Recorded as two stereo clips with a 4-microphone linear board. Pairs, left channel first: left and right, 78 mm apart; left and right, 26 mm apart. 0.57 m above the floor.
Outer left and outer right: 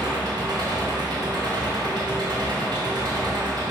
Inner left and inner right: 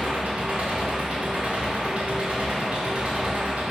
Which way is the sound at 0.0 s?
65° right (ahead or behind).